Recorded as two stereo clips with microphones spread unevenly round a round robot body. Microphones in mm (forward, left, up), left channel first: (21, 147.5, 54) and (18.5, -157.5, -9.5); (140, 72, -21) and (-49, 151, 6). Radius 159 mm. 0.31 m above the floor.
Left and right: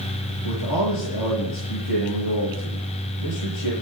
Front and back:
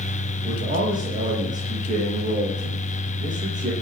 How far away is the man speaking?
About 8.5 m.